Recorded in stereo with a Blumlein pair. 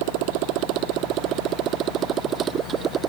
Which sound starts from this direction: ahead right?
A motorcycle, at 0.0 s.